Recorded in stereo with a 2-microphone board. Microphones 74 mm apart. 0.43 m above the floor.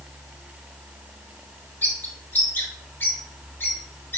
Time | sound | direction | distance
1.8 | a bird | 30° left (ahead or behind) | 1.1 m